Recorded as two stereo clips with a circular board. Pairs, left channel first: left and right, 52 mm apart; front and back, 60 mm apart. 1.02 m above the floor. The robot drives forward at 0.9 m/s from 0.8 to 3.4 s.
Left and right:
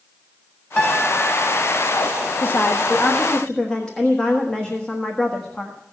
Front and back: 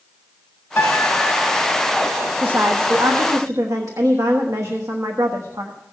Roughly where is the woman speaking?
Behind left.